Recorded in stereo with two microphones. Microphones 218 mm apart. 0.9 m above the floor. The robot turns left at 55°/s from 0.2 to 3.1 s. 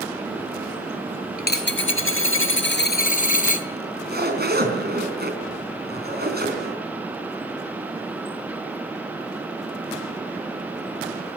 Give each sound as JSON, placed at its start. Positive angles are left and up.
{"t": 1.4, "sound": "a dropped coin", "azimuth_deg": 135, "distance_m": 1.2}
{"t": 3.8, "sound": "a zipper", "side_deg": -45, "distance_m": 4.0}